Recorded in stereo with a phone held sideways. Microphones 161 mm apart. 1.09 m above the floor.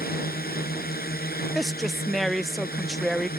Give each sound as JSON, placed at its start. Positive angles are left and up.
{"t": 0.0, "sound": "a drone", "side_deg": 70}
{"t": 1.6, "sound": "a woman speaking", "side_deg": 0}